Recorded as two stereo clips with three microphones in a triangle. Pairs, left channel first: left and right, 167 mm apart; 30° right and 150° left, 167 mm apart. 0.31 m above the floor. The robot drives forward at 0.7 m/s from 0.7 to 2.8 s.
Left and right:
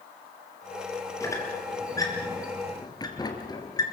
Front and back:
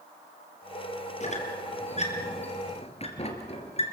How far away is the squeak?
About 4.5 m.